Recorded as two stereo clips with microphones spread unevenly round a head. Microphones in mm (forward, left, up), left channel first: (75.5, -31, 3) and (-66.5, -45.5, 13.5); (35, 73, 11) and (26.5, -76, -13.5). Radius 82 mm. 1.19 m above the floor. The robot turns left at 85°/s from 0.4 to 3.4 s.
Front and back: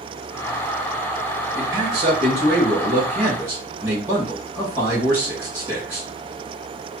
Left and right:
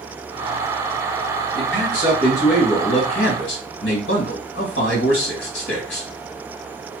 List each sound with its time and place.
1.6 s a man speaking: 90° right, 1.9 m; by 6.1 s 110° left, 1.9 m